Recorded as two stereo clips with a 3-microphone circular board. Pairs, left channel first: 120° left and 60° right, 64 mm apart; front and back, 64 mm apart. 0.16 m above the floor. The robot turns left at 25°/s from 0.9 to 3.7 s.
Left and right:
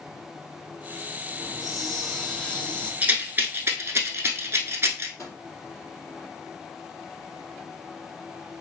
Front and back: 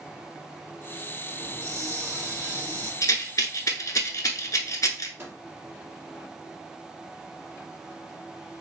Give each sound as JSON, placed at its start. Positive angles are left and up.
{"t": 1.4, "sound": "a hiss", "azimuth_deg": -135, "distance_m": 1.3}
{"t": 3.0, "sound": "a rattle", "azimuth_deg": 5, "distance_m": 0.8}
{"t": 5.2, "sound": "a microwave", "azimuth_deg": 140, "distance_m": 1.7}